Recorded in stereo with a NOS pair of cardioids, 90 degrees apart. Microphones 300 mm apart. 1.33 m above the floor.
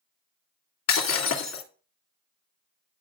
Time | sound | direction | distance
0.9 | breaking glass | 60° left | 2.5 m